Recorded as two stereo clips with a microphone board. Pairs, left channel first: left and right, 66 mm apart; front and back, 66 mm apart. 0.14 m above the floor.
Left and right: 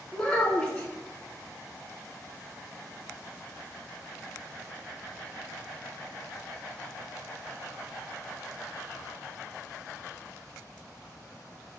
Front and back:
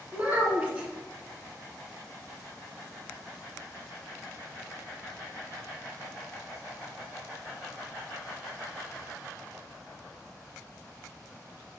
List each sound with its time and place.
0.1 s a child speaking: 145° left, 0.8 m